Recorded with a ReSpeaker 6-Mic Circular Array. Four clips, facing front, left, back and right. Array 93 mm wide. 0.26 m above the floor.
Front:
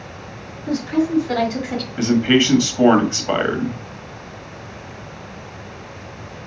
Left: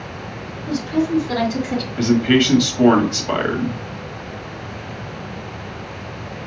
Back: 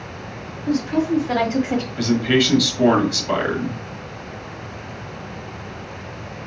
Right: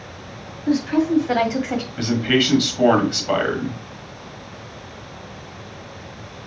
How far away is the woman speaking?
About 1.9 m.